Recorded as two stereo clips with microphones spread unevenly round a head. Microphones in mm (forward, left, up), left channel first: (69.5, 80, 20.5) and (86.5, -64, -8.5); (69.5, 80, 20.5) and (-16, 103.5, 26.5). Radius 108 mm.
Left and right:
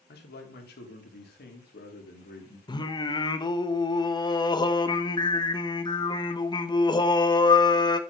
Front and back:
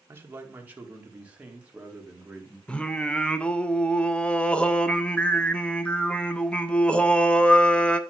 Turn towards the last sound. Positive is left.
turn(degrees=65)